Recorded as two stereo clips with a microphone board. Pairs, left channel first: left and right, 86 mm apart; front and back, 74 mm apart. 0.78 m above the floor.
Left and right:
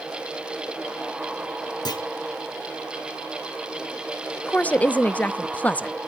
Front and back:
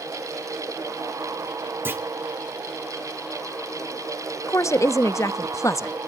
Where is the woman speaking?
20° left, 0.6 m.